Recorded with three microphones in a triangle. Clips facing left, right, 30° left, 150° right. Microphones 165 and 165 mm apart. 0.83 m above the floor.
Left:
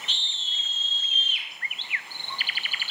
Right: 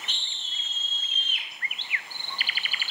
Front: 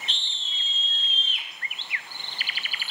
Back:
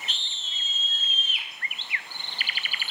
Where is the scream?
65° right, 1.5 m.